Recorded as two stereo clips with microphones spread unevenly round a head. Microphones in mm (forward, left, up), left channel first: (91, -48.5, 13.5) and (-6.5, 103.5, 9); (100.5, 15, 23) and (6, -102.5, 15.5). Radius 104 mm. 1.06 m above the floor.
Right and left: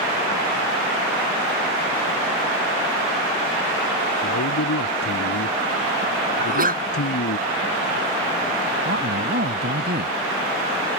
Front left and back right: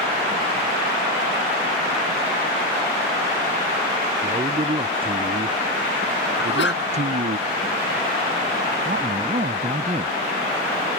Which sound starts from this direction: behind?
A man speaking, at 8.8 s.